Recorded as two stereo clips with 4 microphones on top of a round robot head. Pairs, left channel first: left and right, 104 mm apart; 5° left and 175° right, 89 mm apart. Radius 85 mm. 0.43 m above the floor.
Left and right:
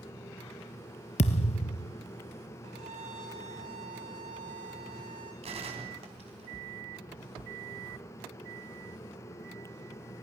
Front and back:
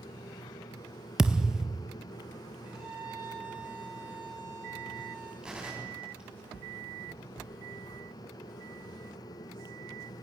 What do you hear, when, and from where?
1.2 s a thud: 100° left, 1.4 m
2.6 s a violin: 100° right, 10 m
5.4 s a gunshot: 95° right, 4 m